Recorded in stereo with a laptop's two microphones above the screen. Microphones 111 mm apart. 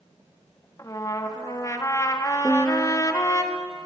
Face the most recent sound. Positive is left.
turn(degrees=0)  # may be behind; listen again after turning